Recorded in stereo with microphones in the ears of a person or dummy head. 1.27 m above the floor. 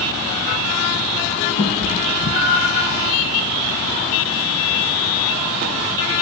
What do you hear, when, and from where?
1.6 s a cat meowing: 30° left (ahead or behind), 3 m; by 2.9 s 45° left (ahead or behind), 3.5 m